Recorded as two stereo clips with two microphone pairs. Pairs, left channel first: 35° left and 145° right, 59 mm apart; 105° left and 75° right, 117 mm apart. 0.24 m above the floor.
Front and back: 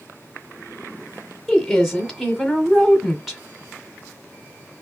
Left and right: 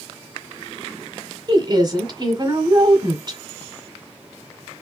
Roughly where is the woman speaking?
Ahead right.